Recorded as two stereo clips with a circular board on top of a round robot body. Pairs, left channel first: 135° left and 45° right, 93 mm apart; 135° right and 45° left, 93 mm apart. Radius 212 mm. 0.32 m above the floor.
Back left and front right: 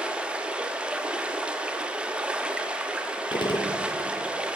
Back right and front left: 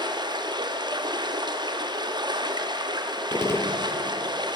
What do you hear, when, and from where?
0.0 s running water: 30° left, 1.4 m
3.3 s a gunshot: 165° left, 1.4 m